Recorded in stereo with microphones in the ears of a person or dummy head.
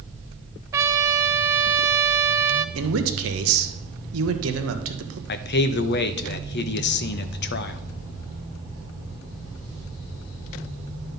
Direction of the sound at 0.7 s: 15° right (ahead or behind).